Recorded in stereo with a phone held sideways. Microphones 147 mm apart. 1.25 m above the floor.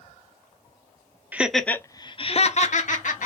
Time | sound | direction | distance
1.3 | laughter | 10° right (ahead or behind) | 0.6 m